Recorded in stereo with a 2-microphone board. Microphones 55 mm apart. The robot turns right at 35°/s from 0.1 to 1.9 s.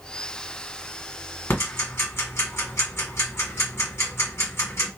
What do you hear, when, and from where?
1.5 s ticking: 50° left (ahead or behind), 1.8 m; by 4.9 s 55° left (ahead or behind), 1.8 m